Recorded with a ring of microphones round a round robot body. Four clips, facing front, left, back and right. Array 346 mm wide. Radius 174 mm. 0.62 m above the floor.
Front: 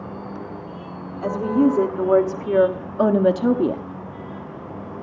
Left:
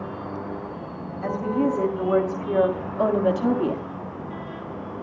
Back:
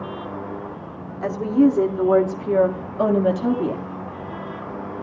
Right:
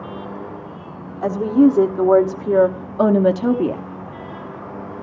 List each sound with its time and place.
1.2 s a woman speaking: 100° right, 1.9 m; by 3.8 s 40° right, 1.3 m